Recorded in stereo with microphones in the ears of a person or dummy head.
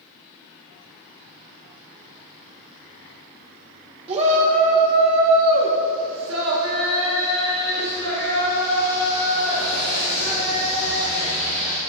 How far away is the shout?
About 1.6 m.